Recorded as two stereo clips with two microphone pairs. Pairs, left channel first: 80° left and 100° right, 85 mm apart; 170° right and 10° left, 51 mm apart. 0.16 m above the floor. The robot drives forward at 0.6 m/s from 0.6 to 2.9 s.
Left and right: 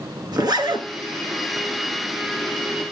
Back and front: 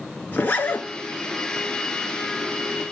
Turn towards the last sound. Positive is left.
turn(degrees=-140)